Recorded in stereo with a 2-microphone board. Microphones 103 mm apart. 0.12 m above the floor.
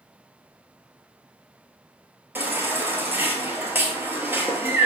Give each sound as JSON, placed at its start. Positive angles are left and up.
{"t": 2.4, "sound": "a baby crying", "side_deg": -20, "distance_m": 0.7}